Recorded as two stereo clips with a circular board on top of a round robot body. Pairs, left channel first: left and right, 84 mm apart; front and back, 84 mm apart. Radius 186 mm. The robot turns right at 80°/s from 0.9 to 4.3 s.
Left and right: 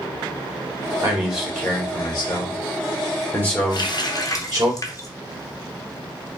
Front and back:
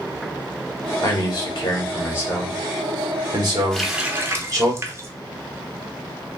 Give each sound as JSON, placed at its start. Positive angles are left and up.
{"t": 1.0, "sound": "a man speaking", "azimuth_deg": -35, "distance_m": 2.5}
{"t": 3.7, "sound": "a running tap", "azimuth_deg": 80, "distance_m": 1.0}